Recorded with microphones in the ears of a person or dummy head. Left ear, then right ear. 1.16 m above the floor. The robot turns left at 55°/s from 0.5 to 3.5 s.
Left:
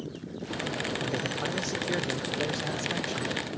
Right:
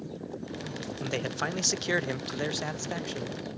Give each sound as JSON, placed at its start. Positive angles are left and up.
{"t": 1.0, "sound": "a man speaking", "azimuth_deg": -55, "distance_m": 0.5}